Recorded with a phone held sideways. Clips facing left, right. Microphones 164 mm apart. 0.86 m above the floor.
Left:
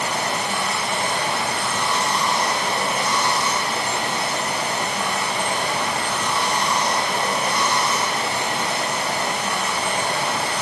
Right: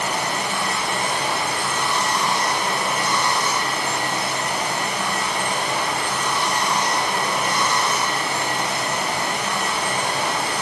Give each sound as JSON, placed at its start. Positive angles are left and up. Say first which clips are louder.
{"t": 0.0, "sound": "running water", "louder": "even", "side_deg": 30, "distance_m": 3.0}